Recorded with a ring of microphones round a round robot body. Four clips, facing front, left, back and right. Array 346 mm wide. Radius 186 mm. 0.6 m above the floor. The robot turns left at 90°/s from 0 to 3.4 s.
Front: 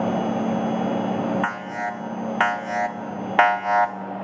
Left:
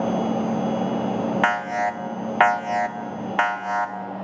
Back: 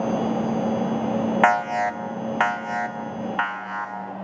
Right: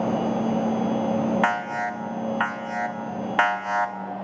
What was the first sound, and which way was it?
An alarm, 170° left.